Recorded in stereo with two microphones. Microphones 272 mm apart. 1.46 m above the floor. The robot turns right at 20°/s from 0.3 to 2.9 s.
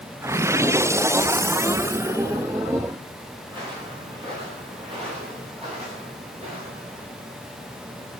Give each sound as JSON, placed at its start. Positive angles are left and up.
{"t": 3.4, "sound": "footsteps", "side_deg": -15, "distance_m": 8.5}